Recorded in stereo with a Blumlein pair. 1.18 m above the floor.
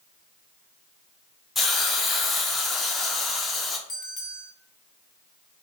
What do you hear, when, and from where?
1.6 s a hiss: 10° left, 0.5 m
3.9 s a bell: 10° left, 1.6 m